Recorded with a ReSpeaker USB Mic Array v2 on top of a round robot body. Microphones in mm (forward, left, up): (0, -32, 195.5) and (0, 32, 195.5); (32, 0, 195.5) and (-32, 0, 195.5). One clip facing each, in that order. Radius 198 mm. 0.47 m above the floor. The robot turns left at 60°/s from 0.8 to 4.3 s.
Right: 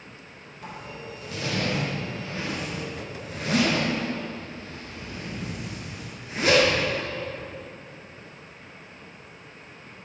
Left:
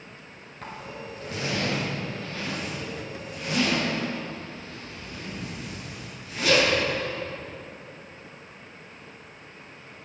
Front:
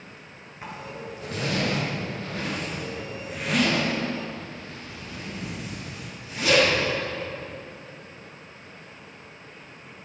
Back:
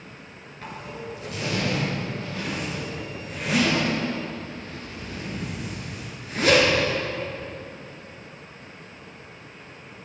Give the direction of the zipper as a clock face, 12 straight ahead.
10 o'clock.